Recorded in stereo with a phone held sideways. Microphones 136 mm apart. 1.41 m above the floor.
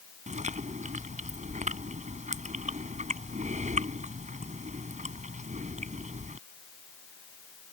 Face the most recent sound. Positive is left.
turn(degrees=-75)  # may be behind; listen again after turning